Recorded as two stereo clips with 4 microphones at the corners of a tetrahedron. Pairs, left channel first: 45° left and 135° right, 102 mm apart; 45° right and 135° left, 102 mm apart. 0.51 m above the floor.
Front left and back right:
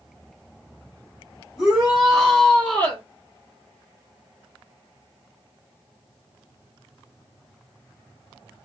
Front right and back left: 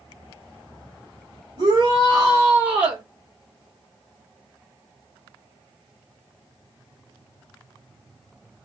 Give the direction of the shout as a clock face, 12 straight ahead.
7 o'clock.